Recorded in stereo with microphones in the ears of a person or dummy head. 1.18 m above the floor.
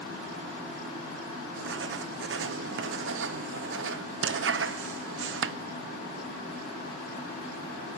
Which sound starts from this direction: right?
Writing, at 1.6 s.